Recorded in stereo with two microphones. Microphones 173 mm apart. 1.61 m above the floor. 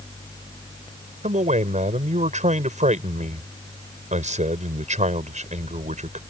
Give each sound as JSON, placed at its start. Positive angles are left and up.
{"t": 1.2, "sound": "a man speaking", "side_deg": -45}